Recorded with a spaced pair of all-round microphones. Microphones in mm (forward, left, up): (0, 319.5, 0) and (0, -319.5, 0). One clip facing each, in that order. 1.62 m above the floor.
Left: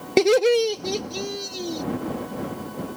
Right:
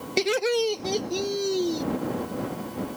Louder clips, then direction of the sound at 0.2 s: Left 7 dB; 75° left (ahead or behind).